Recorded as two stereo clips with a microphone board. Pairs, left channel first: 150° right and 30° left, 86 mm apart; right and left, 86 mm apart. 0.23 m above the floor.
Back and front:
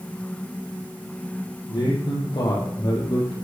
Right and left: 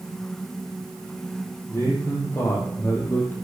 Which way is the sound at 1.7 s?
150° right.